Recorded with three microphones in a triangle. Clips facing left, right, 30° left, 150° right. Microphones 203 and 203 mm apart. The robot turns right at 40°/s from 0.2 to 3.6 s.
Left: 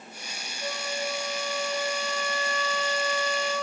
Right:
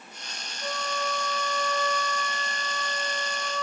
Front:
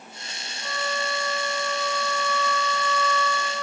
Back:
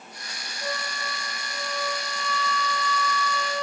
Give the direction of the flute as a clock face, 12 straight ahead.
7 o'clock.